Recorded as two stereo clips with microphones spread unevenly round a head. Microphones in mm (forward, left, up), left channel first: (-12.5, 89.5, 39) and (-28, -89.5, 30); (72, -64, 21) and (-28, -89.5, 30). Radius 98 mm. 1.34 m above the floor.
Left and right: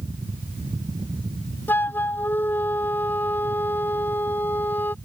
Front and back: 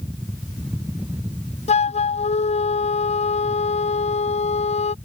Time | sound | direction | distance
1.7 | a flute | 5° left | ?